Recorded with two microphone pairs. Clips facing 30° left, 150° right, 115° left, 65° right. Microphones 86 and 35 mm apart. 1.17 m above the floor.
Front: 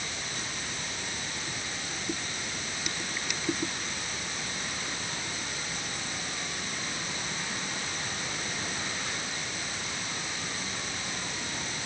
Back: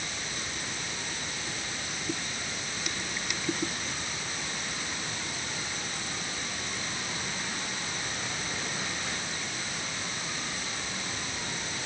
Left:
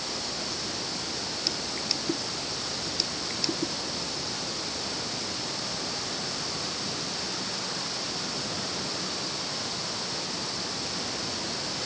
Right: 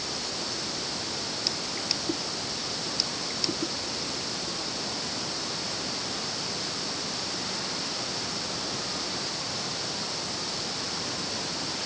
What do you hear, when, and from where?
Only background noise.